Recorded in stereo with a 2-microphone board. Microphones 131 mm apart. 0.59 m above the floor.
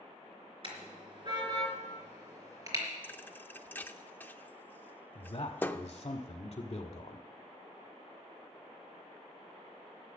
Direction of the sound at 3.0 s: 15° left (ahead or behind).